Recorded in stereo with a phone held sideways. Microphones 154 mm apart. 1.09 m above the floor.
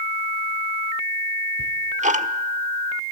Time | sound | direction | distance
1.6 | ticking | 50° right (ahead or behind) | 1.1 m